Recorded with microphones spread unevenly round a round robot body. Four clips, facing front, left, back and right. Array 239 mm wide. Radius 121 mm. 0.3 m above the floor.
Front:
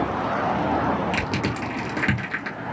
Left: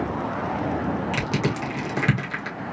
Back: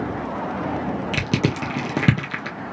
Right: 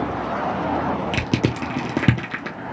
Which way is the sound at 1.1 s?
125° right.